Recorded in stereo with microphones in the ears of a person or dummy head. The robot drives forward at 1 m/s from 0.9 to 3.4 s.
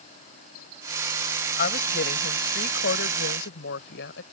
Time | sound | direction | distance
1.6 | a woman speaking | 55° left (ahead or behind) | ?